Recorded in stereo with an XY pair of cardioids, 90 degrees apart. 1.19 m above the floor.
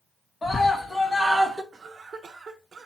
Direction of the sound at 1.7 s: 55° right.